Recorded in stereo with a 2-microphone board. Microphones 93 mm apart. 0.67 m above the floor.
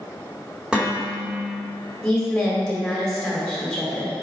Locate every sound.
0.7 s dishes clattering: 10° right (ahead or behind), 1.8 m
2.0 s a woman speaking: 5° left (ahead or behind), 2.0 m